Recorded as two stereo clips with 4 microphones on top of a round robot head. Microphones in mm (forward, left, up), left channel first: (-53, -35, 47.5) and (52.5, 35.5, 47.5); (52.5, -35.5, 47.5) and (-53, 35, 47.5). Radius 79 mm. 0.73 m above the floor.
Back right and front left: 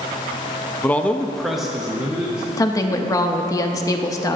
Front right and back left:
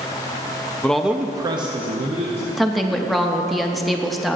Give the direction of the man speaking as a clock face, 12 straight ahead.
3 o'clock.